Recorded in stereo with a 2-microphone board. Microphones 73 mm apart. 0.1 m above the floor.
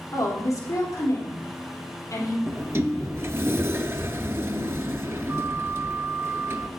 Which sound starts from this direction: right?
A sliding door, at 2.5 s.